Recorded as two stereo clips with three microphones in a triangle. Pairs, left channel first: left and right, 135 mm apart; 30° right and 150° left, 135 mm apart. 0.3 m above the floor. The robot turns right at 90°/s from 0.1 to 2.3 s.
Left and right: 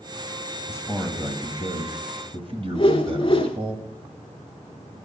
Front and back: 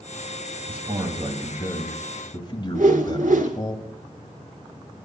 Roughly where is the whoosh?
Behind left.